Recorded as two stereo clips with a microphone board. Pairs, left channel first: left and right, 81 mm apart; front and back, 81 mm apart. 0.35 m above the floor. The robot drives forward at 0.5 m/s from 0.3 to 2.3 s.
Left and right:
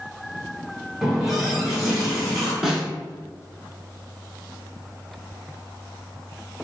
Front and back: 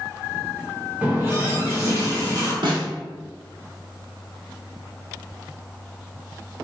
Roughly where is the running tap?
Behind.